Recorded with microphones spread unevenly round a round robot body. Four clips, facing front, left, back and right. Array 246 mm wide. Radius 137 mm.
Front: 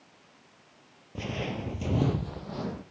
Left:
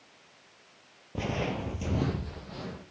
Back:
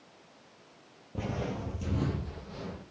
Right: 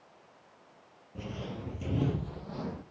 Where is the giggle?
I don't hear a giggle.